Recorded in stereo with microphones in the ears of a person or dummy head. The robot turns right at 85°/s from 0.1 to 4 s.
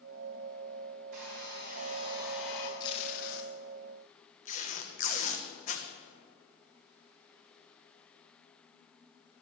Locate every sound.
1.1 s a hair dryer: 115° right, 2.5 m; by 2.7 s 20° left, 2.5 m
2.8 s tape being pulled: 25° left (ahead or behind), 1.0 m; by 5.9 s 50° left (ahead or behind), 1.0 m